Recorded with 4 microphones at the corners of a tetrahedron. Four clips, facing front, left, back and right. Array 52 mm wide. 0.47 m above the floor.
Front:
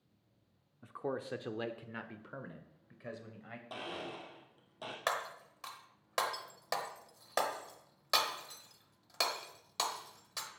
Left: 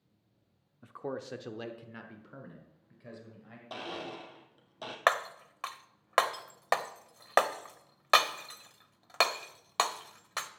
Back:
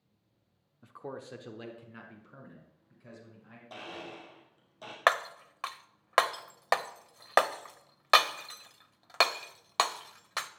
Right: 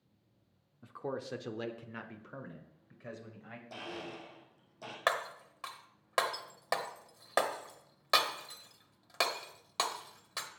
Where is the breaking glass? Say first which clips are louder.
Left 5 dB, back 10 dB; 150° left, 0.8 m.